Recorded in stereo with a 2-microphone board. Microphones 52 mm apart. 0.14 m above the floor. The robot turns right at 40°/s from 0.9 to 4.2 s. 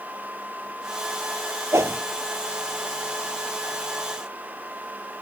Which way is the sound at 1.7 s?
65° right (ahead or behind).